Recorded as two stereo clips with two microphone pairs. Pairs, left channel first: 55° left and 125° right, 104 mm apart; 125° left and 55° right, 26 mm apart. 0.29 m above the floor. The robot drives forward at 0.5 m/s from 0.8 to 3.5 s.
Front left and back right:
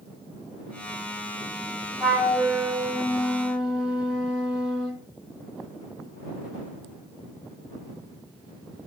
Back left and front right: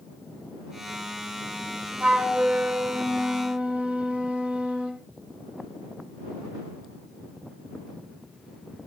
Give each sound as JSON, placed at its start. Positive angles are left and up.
{"t": 2.0, "sound": "a flute", "azimuth_deg": -35, "distance_m": 3.0}